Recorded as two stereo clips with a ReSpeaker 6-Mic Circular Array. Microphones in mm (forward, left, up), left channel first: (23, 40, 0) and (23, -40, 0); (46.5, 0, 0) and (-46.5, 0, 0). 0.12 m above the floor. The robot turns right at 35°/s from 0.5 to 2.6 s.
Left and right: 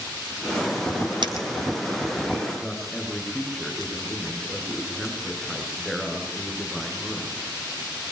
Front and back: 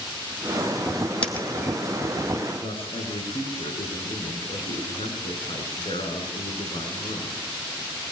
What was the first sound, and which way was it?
A dropped coin, 80° right.